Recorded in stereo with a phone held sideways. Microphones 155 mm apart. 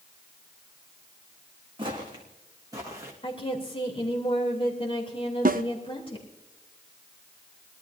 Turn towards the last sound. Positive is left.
turn(degrees=-65)  # may be behind; listen again after turning